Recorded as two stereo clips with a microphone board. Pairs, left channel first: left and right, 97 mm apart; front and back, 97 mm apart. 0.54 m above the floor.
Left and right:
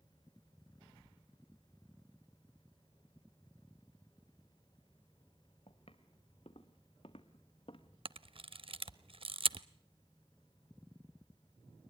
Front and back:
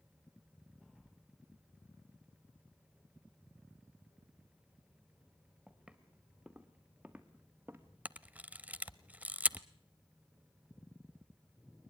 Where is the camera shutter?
105° right, 0.5 m.